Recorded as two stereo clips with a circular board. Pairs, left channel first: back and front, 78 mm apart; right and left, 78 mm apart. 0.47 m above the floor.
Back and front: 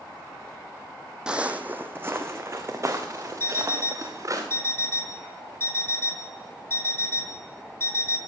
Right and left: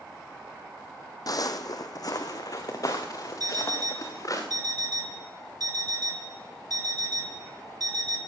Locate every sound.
1.3 s footsteps: 80° right, 0.7 m; by 4.4 s 50° right, 2.5 m
3.4 s an alarm clock: 120° left, 2.5 m